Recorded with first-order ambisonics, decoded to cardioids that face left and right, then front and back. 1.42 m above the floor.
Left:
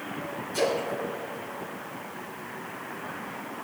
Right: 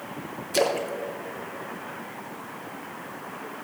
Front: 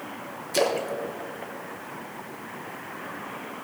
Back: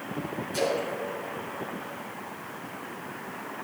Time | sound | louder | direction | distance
0.5 | a splash | right 3 dB, front 4 dB | 55° right | 0.9 m